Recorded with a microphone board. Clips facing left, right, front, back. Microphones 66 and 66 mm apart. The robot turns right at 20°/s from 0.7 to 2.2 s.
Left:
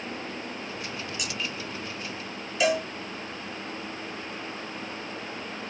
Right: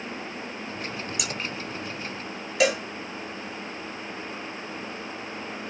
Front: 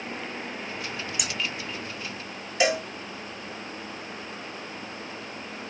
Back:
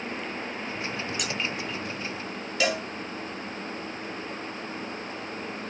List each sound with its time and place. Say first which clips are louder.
1.2 s scissors: right 2 dB, back 2 dB; 80° right, 3 m
2.6 s a cowbell: right 1 dB, front 3 dB; 70° right, 5.5 m